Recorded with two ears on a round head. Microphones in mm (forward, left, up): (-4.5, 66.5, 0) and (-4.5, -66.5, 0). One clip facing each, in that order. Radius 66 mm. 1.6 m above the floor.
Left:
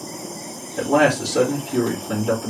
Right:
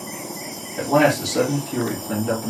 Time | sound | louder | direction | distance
0.8 | a man speaking | even | centre (ahead or behind) | 2.5 m